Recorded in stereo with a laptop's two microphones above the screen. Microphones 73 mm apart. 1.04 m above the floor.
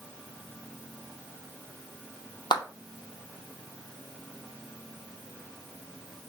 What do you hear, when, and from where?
2.5 s a clap: 90° left, 0.9 m